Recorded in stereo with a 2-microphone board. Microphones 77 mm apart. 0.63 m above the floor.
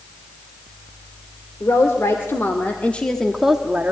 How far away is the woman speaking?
About 2 m.